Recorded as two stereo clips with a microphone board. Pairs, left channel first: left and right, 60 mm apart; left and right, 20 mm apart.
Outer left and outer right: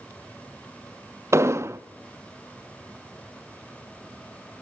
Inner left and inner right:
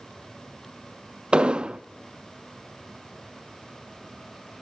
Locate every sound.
1.3 s an explosion: 50° right (ahead or behind), 0.5 m